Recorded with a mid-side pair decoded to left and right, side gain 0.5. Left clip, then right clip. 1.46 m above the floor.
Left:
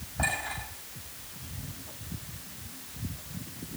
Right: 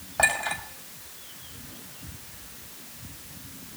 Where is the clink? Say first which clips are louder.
Right 7 dB; 65° right, 5.5 m.